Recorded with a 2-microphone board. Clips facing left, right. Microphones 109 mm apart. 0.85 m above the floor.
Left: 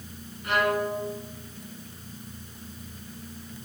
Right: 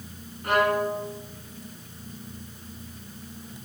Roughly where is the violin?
Right.